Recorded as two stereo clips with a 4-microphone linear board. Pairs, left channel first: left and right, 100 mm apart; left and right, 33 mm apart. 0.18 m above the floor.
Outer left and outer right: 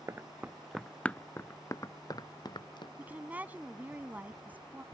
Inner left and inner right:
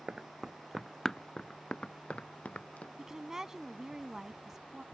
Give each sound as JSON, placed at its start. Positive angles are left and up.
{"t": 0.1, "sound": "running footsteps", "side_deg": -25}
{"t": 3.0, "sound": "a woman speaking", "side_deg": -15}